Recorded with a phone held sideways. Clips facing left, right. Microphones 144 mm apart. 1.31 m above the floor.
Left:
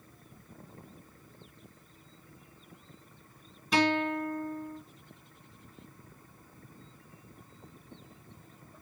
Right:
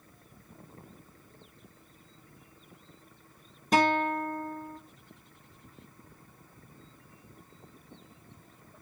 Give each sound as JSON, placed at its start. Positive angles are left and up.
{"t": 3.7, "sound": "a guitar", "side_deg": -45, "distance_m": 1.0}